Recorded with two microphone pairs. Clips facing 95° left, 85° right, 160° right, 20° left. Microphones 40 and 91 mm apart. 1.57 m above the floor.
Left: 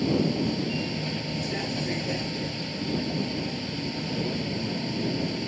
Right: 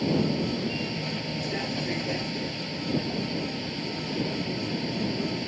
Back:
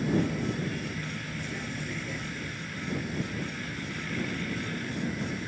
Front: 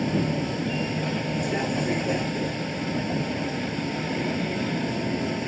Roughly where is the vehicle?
Ahead.